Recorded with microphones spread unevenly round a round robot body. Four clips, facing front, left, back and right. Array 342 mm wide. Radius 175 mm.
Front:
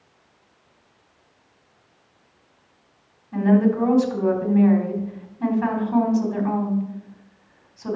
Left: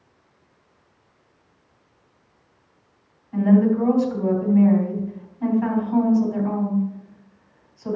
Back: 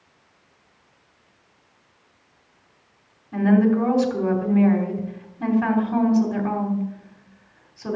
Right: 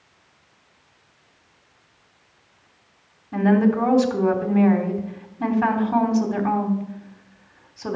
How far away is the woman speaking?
About 3 m.